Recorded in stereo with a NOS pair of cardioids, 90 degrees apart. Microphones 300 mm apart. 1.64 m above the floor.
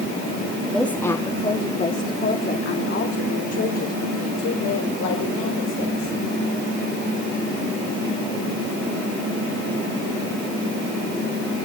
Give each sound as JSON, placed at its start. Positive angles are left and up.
{"t": 0.7, "sound": "a woman speaking", "azimuth_deg": 0, "distance_m": 3.0}